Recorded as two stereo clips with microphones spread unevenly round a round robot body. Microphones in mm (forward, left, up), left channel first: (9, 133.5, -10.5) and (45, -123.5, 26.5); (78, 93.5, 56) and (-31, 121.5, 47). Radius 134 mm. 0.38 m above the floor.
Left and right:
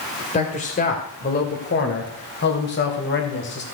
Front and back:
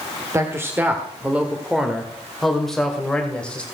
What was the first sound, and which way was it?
A man speaking, 125° left.